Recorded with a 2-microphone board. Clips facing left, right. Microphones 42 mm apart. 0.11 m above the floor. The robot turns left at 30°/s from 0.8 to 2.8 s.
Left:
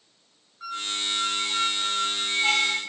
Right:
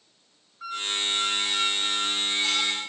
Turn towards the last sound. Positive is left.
turn(degrees=135)